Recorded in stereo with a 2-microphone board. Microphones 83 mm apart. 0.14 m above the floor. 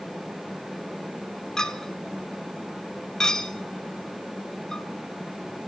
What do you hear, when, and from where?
1.6 s a clink: 5° left (ahead or behind), 0.6 m